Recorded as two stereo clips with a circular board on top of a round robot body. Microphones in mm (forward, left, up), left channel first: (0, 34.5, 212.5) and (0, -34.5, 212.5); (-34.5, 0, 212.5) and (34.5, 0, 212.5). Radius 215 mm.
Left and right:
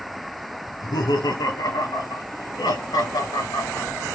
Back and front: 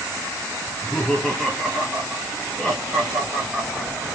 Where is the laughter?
100° left, 4 m; by 4.0 s 90° left, 8 m.